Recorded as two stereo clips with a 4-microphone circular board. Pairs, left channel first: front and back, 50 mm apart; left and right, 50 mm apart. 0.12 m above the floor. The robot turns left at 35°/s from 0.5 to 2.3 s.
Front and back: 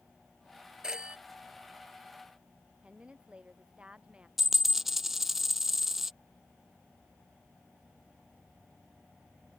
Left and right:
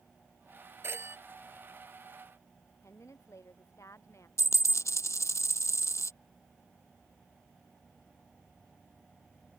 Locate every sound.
0.8 s a phone ringing: 105° right; by 1.2 s 115° right
2.8 s a woman speaking: 110° left
4.4 s a dropped coin: 95° left